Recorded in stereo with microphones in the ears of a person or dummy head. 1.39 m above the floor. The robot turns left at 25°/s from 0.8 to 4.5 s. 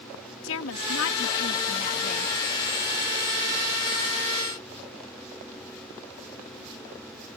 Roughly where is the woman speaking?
Left.